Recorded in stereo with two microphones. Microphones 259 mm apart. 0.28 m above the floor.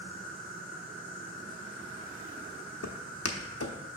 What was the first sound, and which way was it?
An insect, 50° right (ahead or behind).